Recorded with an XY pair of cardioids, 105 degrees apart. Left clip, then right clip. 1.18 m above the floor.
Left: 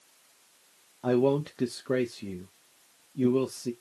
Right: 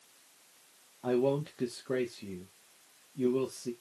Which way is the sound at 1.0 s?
40° left.